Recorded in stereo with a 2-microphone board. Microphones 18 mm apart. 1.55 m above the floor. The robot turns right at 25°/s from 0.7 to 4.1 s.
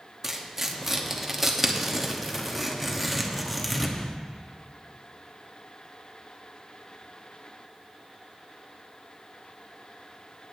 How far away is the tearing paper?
About 1.0 m.